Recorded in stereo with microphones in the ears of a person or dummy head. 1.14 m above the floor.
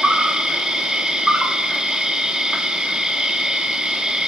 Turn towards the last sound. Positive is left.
turn(degrees=0)  # may be behind; listen again after turning